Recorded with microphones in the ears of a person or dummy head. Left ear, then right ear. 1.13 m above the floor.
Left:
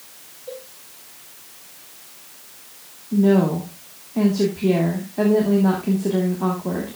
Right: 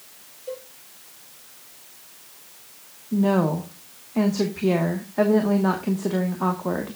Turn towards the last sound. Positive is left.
turn(degrees=-45)  # may be behind; listen again after turning